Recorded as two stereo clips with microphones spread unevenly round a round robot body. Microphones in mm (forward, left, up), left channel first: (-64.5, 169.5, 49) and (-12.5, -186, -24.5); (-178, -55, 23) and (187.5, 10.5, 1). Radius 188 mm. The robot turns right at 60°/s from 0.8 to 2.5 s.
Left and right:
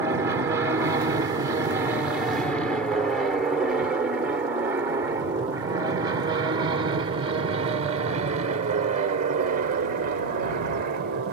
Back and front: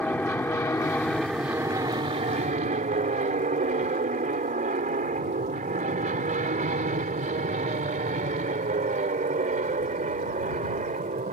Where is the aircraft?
90° right; by 11.3 s 50° right.